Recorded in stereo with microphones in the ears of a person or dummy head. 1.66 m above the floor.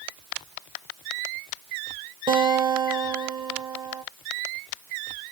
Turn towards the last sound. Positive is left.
turn(degrees=-25)  # may be behind; listen again after turning